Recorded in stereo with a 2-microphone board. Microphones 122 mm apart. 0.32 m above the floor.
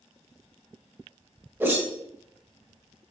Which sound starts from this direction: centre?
A whoosh, at 1.6 s.